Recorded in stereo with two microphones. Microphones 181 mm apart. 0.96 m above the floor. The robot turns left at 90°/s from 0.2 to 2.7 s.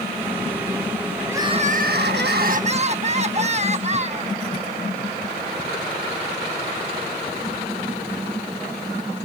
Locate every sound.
1.3 s crying: 10° right; by 4.3 s 140° right